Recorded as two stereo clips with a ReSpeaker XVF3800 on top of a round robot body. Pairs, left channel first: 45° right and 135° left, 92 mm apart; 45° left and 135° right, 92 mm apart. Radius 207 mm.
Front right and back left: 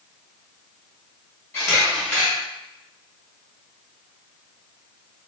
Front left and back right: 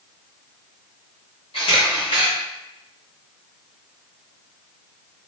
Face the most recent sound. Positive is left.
turn(degrees=25)